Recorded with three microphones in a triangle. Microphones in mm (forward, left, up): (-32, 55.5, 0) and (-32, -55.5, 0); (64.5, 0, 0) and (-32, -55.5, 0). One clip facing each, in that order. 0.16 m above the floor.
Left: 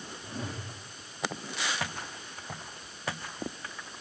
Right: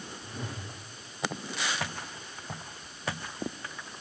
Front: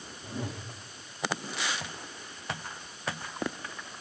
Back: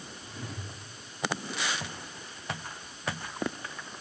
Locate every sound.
0.2 s a whoosh: 35° left, 5.5 m